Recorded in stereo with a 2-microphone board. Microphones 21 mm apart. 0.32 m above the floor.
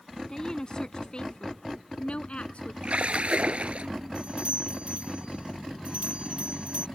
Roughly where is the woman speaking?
Left.